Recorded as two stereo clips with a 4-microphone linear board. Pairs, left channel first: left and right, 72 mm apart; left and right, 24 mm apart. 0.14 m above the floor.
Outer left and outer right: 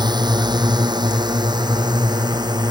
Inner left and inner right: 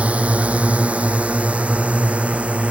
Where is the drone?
75° right (ahead or behind).